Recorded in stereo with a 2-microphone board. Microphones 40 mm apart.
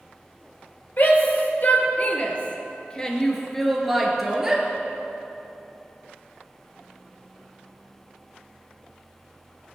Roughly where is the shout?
Left.